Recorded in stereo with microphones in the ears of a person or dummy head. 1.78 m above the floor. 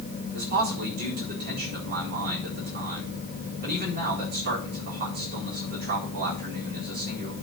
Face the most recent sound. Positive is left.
turn(degrees=-45)  # may be behind; listen again after turning